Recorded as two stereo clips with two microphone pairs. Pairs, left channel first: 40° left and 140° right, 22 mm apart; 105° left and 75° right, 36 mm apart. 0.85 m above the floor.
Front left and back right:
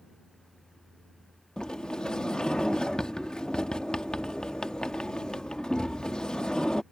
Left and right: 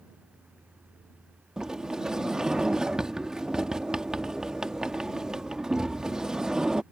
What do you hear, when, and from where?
1.6 s a sliding door: straight ahead